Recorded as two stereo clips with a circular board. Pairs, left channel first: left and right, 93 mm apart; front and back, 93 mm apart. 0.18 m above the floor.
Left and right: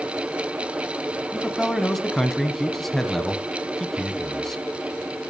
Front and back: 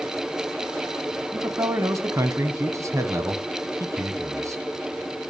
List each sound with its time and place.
1.3 s a man speaking: 175° left, 1.1 m